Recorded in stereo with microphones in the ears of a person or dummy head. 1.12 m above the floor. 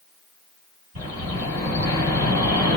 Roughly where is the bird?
Right.